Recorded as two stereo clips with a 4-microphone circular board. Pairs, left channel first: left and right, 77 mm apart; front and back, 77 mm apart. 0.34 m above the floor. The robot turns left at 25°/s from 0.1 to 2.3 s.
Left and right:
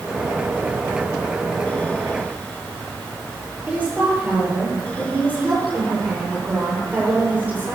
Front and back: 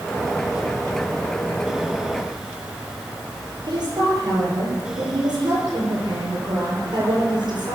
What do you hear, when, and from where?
3.7 s a woman speaking: 160° right, 8.5 m